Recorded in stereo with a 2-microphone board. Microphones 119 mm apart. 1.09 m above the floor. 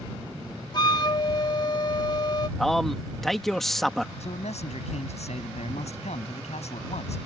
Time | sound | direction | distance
0.7 | a flute | 40° left (ahead or behind) | ?
2.6 | a man speaking | 5° left (ahead or behind) | ?
4.2 | a man speaking | 80° left | ?